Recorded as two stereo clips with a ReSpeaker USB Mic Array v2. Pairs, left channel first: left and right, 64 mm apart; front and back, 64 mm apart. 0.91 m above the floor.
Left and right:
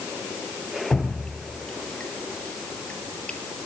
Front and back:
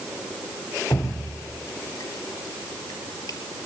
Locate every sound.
0.9 s dripping: 15° left, 4.5 m